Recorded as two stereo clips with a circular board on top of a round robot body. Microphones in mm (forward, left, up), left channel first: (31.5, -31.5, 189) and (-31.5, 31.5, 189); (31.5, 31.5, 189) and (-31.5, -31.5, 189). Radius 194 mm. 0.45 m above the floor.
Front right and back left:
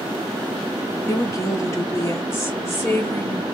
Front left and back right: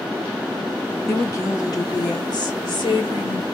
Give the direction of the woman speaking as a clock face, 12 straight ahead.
12 o'clock.